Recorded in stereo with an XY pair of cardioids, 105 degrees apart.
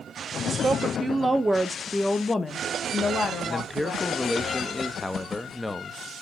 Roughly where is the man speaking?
Ahead.